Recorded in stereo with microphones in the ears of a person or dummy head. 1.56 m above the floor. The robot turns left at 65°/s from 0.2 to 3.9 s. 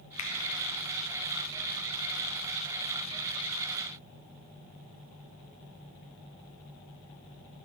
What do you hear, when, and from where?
0.2 s a finger snap: 40° left (ahead or behind), 0.6 m; by 0.3 s 45° left (ahead or behind), 0.6 m